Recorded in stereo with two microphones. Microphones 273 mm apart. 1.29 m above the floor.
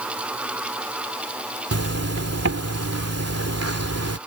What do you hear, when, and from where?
1.7 s a zipper: 60° right (ahead or behind)